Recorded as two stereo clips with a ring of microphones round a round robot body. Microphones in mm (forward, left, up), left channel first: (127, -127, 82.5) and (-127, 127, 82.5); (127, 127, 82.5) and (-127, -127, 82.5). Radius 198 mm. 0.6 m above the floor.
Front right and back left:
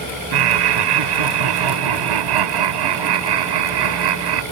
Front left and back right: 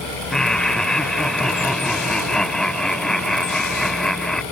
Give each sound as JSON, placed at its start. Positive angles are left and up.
{"t": 0.3, "sound": "laughter", "azimuth_deg": 135}